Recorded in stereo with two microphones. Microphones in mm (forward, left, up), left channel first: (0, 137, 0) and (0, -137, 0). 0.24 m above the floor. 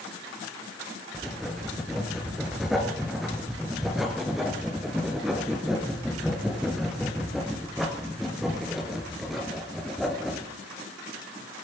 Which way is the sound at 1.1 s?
Centre (ahead or behind).